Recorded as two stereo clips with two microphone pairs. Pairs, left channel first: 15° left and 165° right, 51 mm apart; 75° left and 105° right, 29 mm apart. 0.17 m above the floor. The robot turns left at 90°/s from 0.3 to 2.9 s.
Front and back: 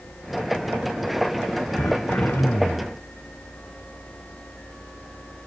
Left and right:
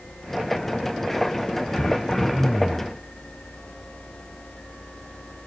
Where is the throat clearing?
45° left, 1.1 m; by 3.0 s 60° right, 1.1 m.